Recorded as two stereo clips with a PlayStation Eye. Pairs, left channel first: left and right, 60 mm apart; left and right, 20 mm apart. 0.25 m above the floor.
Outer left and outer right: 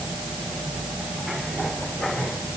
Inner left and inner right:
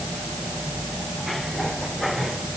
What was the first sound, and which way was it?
Only background noise.